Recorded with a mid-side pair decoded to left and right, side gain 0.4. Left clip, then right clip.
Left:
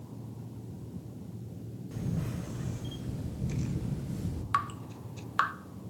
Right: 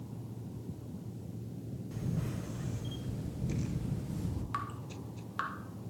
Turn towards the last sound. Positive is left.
turn(degrees=60)